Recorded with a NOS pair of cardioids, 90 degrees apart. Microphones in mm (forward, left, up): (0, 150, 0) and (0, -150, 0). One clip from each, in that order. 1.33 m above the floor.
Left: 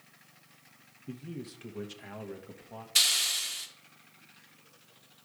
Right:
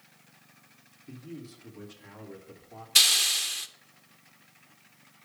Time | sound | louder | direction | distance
1.1 | a man speaking | left 1 dB | 35° left | 0.9 m
3.0 | a hiss | right 4 dB | 20° right | 0.6 m